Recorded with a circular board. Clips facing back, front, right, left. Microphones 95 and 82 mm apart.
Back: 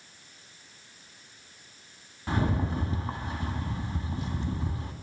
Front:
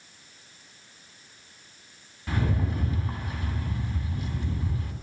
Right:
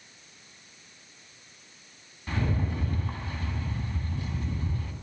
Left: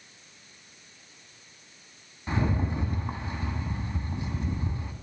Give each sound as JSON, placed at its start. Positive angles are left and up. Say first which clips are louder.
{"t": 2.3, "sound": "a rattle", "louder": "back 1 dB, left 2 dB", "azimuth_deg": 145, "distance_m": 1.8}